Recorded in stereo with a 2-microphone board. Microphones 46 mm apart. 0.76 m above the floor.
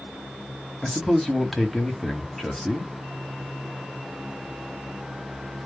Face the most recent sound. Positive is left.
turn(degrees=5)  # may be behind; listen again after turning